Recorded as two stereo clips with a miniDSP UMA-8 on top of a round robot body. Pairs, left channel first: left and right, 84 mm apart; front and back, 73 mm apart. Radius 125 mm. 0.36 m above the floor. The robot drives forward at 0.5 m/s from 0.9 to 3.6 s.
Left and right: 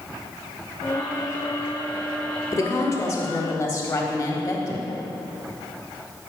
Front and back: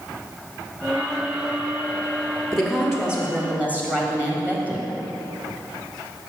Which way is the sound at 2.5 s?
85° left.